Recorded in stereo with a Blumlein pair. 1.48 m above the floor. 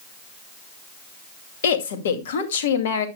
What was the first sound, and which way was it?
A woman speaking, 60° left.